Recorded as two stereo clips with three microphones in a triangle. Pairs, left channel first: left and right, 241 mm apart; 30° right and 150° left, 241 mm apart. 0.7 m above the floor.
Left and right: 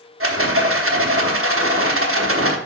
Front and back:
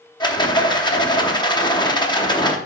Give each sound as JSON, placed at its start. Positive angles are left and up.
{"t": 0.2, "sound": "a rattle", "azimuth_deg": -100, "distance_m": 0.9}